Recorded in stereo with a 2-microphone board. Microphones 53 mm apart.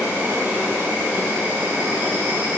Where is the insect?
45° right (ahead or behind), 1.8 m.